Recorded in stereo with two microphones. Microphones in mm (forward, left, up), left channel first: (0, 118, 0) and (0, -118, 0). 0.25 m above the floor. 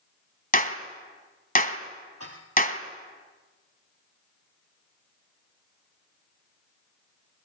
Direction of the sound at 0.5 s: 35° left (ahead or behind).